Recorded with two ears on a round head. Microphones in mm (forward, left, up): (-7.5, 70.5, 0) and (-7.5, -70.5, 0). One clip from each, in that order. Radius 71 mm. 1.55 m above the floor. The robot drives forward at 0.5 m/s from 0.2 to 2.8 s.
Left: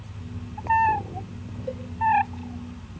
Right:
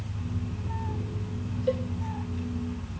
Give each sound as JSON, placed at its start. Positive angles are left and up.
{"t": 1.7, "sound": "a cowbell", "side_deg": -20, "distance_m": 1.2}